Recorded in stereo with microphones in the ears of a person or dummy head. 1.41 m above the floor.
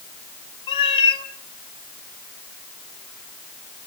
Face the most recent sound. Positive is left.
turn(degrees=30)  # may be behind; listen again after turning